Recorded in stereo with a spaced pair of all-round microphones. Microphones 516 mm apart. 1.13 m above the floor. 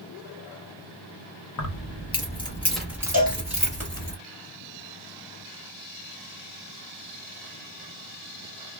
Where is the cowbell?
30° right (ahead or behind), 1.4 m.